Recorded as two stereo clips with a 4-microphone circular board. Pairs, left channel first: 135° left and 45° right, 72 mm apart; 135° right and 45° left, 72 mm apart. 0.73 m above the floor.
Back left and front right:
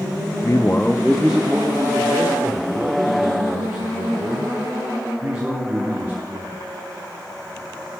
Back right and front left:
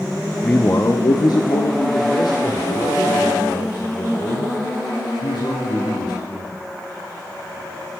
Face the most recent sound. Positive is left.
turn(degrees=-100)